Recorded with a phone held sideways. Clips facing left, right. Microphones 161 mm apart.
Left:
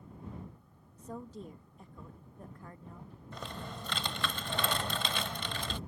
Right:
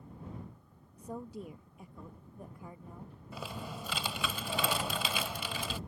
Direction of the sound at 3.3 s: 10° right (ahead or behind).